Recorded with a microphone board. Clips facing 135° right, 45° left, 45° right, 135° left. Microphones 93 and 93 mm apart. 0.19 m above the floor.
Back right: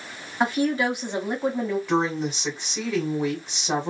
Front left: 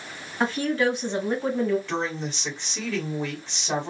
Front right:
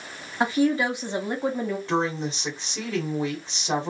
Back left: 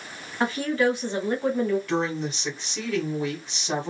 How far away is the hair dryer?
I don't hear a hair dryer.